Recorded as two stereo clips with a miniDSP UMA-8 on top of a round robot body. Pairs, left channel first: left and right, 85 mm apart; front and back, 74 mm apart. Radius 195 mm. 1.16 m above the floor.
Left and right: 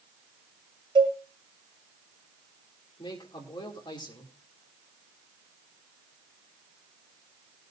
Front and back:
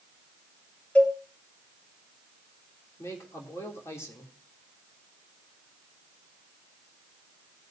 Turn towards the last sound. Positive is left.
turn(degrees=55)